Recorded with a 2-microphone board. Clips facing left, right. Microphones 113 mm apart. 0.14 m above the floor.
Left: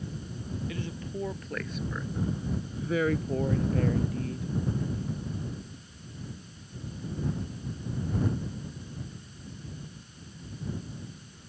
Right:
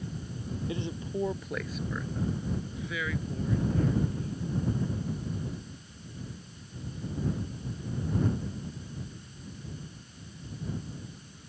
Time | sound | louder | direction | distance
0.7 | a woman speaking | right 2 dB | 25° right (ahead or behind) | ?